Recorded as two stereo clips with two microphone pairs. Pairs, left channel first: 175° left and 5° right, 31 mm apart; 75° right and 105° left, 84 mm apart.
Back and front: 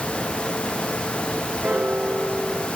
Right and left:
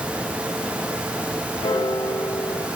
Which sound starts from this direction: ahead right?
A piano, at 1.6 s.